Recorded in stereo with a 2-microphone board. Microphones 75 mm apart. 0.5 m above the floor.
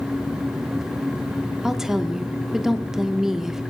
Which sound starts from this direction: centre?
A woman speaking, at 1.6 s.